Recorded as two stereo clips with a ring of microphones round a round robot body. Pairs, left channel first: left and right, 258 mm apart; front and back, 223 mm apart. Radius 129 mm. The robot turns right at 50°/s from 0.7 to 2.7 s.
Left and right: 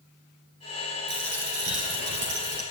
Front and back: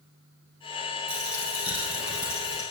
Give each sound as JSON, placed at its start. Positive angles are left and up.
{"t": 1.1, "sound": "a dropped coin", "azimuth_deg": -140, "distance_m": 3.0}